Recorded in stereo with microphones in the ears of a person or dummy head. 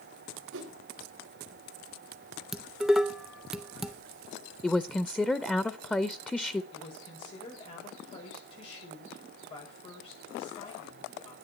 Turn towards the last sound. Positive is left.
turn(degrees=40)  # may be behind; listen again after turning